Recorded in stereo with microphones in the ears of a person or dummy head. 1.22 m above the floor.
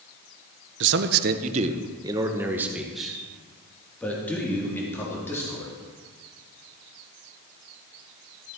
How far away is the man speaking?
About 0.8 m.